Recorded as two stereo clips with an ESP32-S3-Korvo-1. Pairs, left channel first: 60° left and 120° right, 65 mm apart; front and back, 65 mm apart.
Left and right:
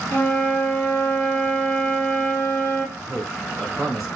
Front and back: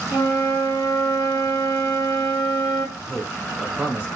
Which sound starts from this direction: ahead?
A flute, at 0.1 s.